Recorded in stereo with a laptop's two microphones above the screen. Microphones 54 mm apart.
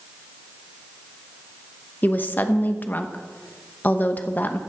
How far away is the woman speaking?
About 0.8 m.